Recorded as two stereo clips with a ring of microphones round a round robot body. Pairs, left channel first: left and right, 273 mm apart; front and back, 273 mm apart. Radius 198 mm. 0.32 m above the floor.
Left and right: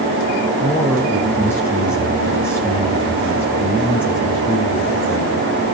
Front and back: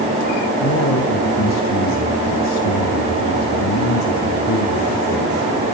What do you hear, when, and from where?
0.6 s a man speaking: 10° left, 3.5 m